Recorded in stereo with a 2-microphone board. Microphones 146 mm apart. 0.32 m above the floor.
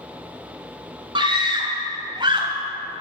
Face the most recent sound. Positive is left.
turn(degrees=-35)  # may be behind; listen again after turning